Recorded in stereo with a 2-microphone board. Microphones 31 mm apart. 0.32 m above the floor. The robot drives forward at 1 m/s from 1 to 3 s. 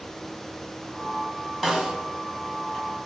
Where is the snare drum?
20° right (ahead or behind), 2 m.